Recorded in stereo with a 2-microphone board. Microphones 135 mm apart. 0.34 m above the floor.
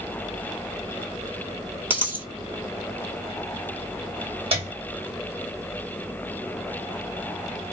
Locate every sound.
1.9 s a dropped coin: 15° right (ahead or behind), 1.1 m
4.5 s a piano: 45° right (ahead or behind), 1.9 m